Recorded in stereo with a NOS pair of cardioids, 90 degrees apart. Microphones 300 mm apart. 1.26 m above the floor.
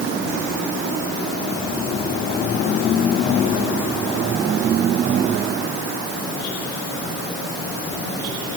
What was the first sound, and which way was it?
Only background noise.